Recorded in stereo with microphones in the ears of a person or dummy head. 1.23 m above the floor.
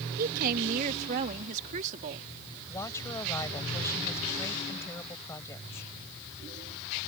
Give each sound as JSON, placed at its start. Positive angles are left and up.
{"t": 0.2, "sound": "a woman speaking", "side_deg": -45}
{"t": 2.7, "sound": "a woman speaking", "side_deg": 15}